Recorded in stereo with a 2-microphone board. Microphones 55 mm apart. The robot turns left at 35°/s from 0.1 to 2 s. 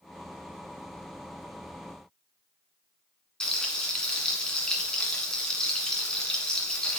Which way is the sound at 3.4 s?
15° left (ahead or behind).